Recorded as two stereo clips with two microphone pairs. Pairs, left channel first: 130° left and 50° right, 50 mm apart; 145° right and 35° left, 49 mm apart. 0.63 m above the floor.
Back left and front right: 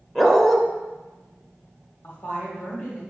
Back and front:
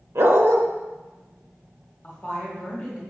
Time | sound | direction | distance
0.1 | a dog barking | 50° left | 0.9 m
2.0 | a woman speaking | 150° left | 1.6 m